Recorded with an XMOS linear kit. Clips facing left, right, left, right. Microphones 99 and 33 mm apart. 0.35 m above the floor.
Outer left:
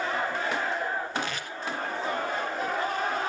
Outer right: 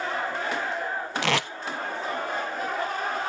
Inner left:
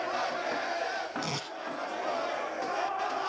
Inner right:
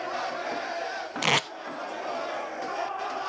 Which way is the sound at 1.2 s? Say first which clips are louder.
Outer right 9 dB, inner right 11 dB; 80° right.